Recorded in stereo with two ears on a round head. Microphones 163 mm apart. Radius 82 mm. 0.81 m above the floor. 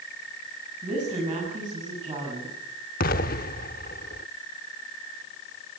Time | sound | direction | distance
0.8 | a woman speaking | 25° right (ahead or behind) | 7 m
3.0 | an explosion | 50° left (ahead or behind) | 0.7 m